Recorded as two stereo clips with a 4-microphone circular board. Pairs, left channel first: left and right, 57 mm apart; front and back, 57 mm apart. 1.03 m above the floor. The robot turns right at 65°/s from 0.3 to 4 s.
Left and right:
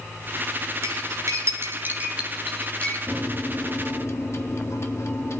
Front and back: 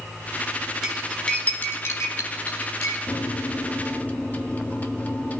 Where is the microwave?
Straight ahead, 1.6 m; by 5.4 s 60° left, 1.6 m.